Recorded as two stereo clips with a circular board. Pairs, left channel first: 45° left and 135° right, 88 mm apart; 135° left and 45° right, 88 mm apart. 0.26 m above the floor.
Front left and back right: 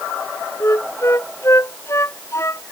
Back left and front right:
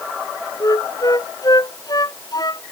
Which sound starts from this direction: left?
A flute, at 0.6 s.